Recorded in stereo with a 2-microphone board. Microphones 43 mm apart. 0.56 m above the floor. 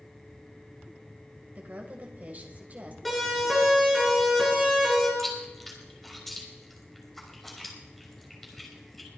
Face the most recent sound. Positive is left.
turn(degrees=0)  # may be behind; listen again after turning